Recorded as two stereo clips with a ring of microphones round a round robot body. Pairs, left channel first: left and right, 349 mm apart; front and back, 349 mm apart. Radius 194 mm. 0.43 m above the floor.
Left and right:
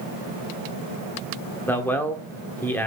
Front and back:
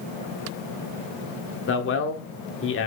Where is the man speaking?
10° left, 1.3 m.